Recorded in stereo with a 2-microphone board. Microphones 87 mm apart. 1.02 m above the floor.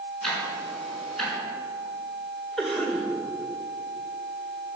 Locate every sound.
0.2 s ticking: 5° left (ahead or behind), 5 m
2.6 s a cough: 5° left (ahead or behind), 3.5 m